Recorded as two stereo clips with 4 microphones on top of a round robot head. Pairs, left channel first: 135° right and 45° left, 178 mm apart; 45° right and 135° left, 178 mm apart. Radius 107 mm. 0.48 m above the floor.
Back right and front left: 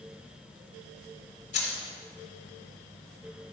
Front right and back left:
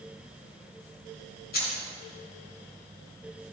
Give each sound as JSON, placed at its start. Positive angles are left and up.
{"t": 1.5, "sound": "keys jangling", "azimuth_deg": -85, "distance_m": 3.5}